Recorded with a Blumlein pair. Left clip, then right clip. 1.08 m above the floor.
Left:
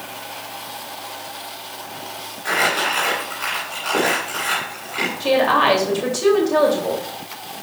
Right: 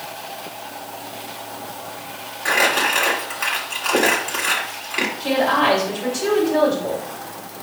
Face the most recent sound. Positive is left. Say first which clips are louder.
# left 3 dB
turn(degrees=20)